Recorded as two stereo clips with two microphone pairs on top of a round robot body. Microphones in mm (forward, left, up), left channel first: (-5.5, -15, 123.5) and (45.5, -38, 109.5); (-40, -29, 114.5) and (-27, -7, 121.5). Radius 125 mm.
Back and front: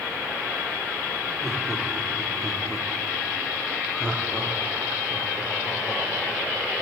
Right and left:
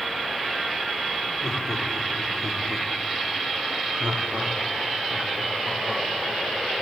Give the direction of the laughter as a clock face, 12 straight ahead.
3 o'clock.